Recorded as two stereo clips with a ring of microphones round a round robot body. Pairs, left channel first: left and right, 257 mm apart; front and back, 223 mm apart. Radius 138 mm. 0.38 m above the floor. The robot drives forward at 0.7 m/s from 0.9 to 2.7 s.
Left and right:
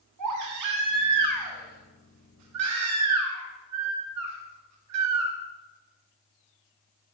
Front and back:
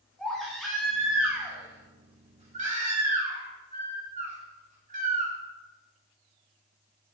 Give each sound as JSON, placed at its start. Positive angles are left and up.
{"t": 0.2, "sound": "a baby crying", "azimuth_deg": -90, "distance_m": 2.5}